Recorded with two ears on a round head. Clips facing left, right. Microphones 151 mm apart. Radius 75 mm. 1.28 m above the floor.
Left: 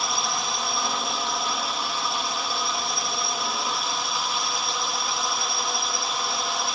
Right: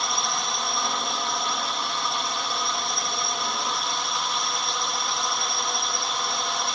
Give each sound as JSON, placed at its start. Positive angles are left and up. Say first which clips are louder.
{"t": 0.0, "sound": "a drone", "louder": "even", "side_deg": 5}